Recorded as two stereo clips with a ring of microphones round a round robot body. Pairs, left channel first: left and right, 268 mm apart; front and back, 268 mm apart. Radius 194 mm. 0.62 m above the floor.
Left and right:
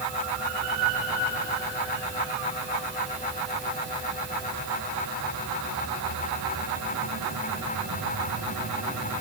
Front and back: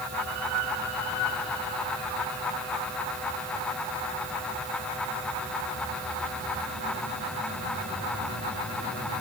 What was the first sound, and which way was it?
Only background noise.